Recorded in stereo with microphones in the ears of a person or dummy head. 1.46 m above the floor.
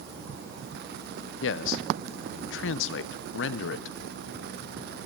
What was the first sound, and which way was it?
A man speaking, 70° left (ahead or behind).